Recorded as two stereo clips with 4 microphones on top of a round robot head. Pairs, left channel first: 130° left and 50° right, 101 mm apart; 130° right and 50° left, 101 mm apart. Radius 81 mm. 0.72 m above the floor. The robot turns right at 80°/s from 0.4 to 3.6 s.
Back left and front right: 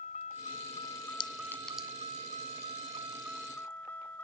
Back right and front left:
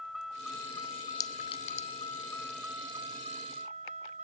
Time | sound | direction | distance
0.0 | a vehicle | 140° left | ?
1.2 | a clink | 175° left | ?